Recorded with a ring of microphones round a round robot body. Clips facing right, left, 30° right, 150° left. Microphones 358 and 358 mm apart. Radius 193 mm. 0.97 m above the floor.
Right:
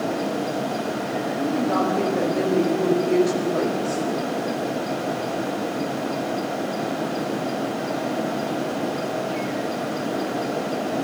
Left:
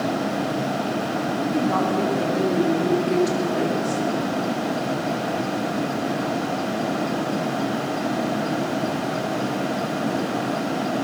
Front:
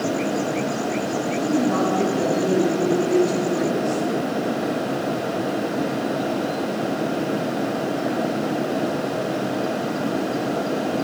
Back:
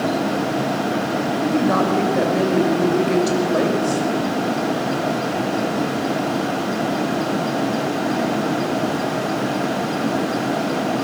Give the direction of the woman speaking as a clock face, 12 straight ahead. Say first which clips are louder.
Right 1 dB, back 1 dB; 7 o'clock.